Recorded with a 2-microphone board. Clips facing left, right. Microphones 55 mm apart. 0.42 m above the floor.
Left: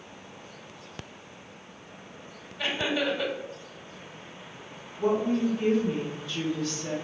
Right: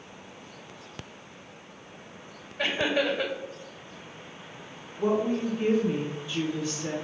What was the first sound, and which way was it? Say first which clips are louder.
Laughter: right 2 dB; 50° right (ahead or behind).